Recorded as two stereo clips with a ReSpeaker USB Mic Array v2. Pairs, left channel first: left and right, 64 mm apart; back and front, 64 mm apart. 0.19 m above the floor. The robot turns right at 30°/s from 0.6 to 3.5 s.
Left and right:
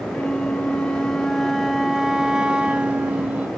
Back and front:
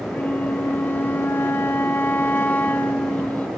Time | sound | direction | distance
0.1 | a flute | 155° left | 0.8 m